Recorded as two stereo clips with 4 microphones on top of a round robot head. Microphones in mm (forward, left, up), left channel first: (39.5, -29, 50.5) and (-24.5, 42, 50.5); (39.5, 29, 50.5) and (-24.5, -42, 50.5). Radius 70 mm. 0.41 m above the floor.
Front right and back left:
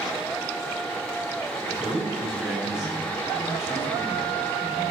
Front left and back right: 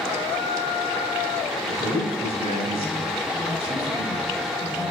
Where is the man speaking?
145° right, 2.5 m.